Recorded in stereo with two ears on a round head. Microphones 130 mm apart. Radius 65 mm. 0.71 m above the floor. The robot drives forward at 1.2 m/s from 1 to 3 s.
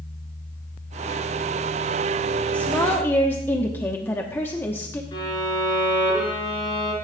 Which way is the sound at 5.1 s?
30° left (ahead or behind).